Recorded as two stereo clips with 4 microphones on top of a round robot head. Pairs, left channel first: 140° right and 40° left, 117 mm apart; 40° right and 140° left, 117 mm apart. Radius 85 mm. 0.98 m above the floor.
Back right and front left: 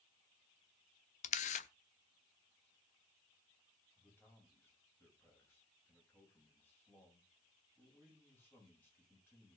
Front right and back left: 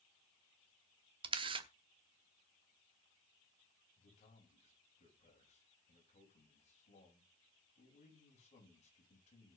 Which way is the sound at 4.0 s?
70° right.